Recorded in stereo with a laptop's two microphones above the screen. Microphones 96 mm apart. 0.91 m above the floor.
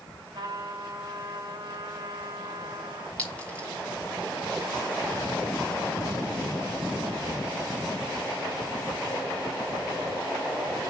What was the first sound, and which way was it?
A trumpet, 50° right (ahead or behind).